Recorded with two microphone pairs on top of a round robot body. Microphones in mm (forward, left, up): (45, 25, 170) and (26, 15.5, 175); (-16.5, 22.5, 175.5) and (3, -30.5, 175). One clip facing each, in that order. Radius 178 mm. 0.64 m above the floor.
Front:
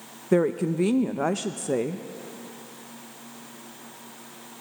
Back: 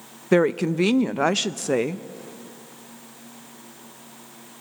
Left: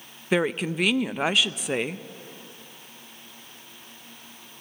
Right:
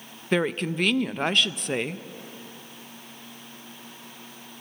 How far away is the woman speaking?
About 0.6 m.